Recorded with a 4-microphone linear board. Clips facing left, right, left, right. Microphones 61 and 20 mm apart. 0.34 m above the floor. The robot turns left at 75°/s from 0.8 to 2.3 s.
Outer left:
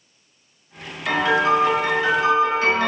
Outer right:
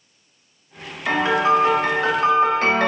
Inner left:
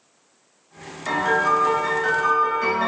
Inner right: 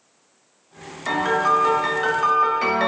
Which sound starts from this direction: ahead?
A piano, at 1.1 s.